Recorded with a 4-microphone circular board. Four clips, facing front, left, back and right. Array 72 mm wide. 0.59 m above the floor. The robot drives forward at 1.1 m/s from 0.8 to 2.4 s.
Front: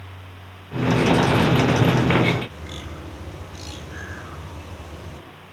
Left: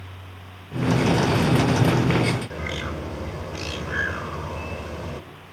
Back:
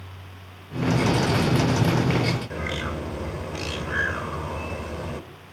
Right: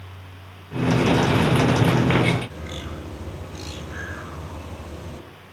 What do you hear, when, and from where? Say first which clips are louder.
2.5 s a bird: left 5 dB, back 8 dB; 140° left, 3 m